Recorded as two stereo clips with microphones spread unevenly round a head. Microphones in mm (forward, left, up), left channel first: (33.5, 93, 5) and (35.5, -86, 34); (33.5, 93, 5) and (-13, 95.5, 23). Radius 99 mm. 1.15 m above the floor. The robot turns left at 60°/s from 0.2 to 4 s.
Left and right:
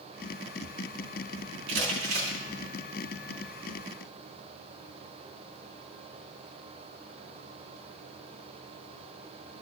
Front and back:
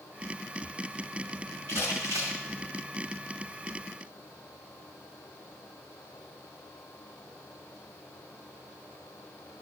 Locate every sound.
1.7 s crumpling: 130° right, 2.5 m; by 2.4 s 170° right, 2.5 m